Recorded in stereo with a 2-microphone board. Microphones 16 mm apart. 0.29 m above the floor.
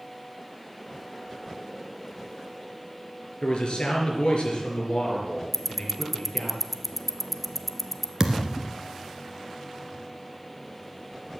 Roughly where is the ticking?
Centre.